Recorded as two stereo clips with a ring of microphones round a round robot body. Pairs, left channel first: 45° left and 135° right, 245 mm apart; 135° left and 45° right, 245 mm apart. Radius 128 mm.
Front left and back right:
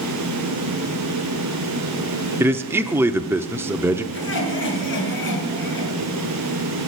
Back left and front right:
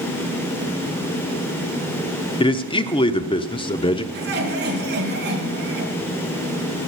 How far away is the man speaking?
About 0.7 m.